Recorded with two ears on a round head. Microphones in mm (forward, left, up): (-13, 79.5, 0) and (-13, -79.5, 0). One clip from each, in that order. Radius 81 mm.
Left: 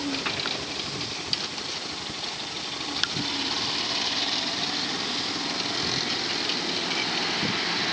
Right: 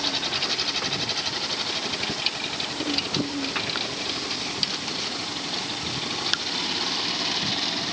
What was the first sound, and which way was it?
Only background noise.